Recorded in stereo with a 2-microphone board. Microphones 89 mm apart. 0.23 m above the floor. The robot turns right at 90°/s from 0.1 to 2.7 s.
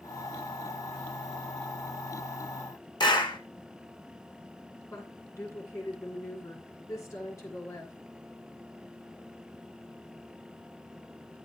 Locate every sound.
3.0 s a clap: 55° left (ahead or behind), 1.6 m
4.9 s a woman speaking: 35° left (ahead or behind), 3 m